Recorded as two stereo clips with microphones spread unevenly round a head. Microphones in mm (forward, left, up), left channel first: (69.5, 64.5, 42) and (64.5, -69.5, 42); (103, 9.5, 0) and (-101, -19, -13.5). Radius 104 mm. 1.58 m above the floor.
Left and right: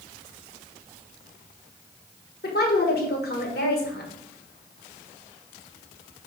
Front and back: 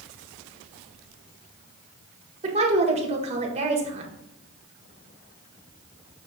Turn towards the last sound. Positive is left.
turn(degrees=125)